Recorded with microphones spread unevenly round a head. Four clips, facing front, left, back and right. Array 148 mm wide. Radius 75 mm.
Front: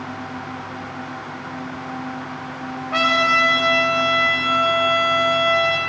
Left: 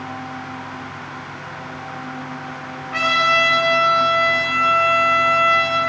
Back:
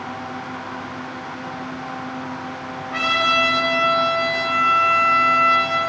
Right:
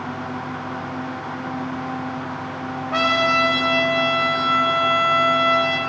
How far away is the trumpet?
About 3 m.